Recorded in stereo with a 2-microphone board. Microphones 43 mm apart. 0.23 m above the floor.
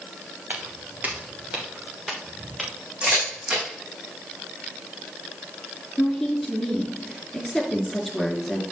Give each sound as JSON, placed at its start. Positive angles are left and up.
{"t": 0.5, "sound": "footsteps", "side_deg": -45, "distance_m": 3.5}
{"t": 3.0, "sound": "a camera shutter", "side_deg": -25, "distance_m": 5.0}
{"t": 6.0, "sound": "a woman speaking", "side_deg": 0, "distance_m": 3.0}